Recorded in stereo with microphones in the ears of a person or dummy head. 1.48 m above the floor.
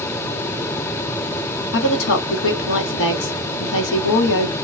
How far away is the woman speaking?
About 1.1 m.